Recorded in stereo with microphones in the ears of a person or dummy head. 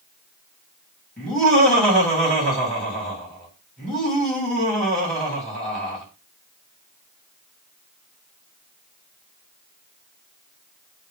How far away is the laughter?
About 2.0 m.